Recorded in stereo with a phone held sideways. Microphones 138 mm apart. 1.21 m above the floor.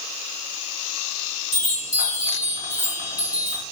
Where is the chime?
60° left (ahead or behind), 1.5 m.